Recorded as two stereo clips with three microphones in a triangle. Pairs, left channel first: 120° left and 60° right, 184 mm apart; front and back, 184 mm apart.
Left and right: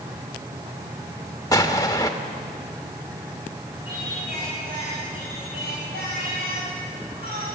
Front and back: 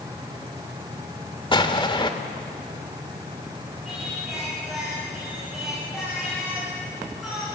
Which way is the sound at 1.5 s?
55° left.